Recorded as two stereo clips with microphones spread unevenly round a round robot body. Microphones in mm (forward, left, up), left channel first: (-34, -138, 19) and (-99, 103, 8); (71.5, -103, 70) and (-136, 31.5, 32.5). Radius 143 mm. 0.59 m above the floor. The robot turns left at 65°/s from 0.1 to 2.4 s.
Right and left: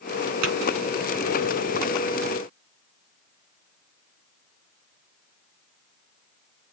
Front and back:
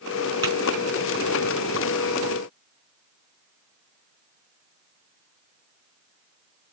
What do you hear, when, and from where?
0.4 s tapping: 75° left, 4.5 m; by 0.5 s 65° left, 4.5 m